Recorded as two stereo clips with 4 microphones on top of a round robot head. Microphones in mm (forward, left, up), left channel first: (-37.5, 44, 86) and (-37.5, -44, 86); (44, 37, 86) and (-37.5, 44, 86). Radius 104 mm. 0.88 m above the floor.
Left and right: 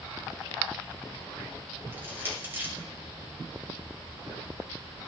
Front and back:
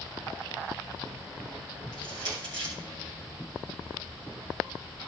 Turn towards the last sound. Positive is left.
turn(degrees=-155)